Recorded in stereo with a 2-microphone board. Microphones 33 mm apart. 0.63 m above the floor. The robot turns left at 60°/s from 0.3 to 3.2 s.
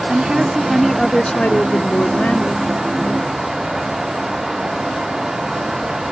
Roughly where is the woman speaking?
Behind right.